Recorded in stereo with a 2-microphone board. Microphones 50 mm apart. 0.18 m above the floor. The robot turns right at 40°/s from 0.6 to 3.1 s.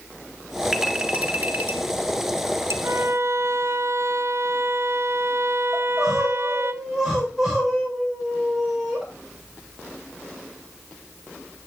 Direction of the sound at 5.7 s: 10° right (ahead or behind).